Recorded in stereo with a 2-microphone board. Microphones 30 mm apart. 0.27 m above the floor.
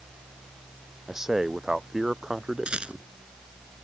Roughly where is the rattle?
Right.